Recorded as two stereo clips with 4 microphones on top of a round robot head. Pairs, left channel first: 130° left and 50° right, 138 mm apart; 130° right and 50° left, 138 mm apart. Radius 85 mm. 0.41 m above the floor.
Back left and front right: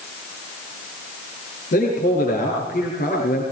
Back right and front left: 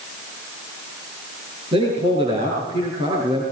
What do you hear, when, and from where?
1.7 s a man speaking: 105° left, 8 m